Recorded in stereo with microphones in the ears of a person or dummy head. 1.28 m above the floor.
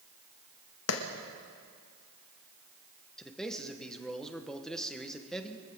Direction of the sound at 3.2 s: 5° left (ahead or behind).